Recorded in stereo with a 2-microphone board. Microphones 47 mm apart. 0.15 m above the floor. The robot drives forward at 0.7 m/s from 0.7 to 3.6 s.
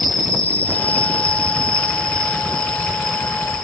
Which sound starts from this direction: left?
An insect, at 0.0 s.